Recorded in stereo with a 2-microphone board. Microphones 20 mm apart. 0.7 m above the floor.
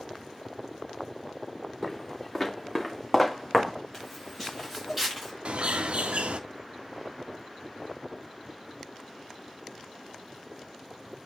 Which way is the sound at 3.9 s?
5° right (ahead or behind).